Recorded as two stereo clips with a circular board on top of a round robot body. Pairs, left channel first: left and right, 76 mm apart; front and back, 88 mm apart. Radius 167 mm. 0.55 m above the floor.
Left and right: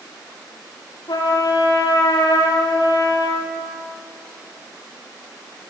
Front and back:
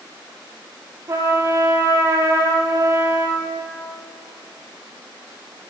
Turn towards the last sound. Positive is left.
turn(degrees=120)